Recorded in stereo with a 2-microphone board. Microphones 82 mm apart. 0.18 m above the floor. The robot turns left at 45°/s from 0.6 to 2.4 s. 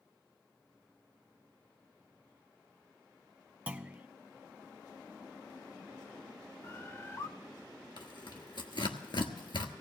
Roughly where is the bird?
Left.